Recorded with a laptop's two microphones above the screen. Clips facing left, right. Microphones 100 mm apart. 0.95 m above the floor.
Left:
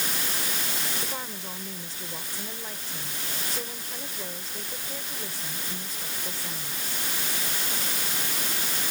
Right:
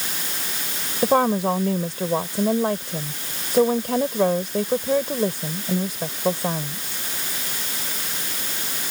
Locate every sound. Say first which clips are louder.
1.0 s a woman speaking: right 19 dB; 75° right (ahead or behind)